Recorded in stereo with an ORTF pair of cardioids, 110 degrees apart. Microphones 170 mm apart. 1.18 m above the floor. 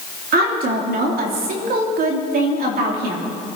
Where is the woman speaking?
65° right, 3 m.